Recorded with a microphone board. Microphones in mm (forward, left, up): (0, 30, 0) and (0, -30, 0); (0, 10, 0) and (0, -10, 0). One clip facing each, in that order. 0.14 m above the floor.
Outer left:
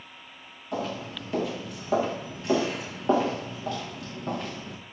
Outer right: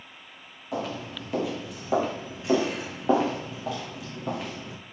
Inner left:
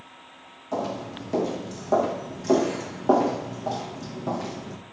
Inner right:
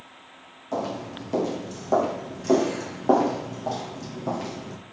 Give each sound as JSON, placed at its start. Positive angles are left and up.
{"t": 0.7, "sound": "footsteps", "side_deg": -5, "distance_m": 5.5}